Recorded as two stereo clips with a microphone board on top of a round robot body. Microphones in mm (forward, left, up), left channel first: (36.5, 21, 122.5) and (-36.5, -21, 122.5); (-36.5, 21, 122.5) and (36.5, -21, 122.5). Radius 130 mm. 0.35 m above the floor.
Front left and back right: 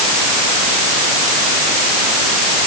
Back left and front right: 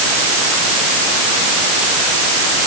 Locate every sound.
Only background noise.